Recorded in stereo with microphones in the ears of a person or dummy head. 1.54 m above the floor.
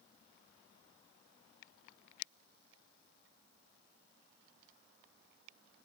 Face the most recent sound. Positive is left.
No sound to turn to.